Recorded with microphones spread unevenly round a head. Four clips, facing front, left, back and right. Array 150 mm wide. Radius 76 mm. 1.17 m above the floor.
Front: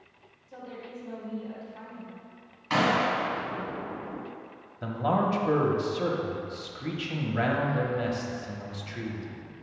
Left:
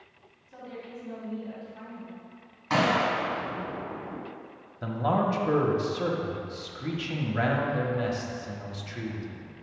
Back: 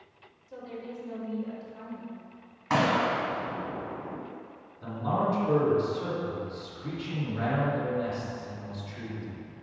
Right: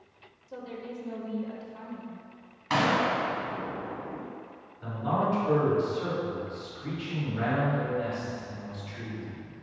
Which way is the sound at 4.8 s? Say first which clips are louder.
Left 2 dB, front 2 dB; 50° left.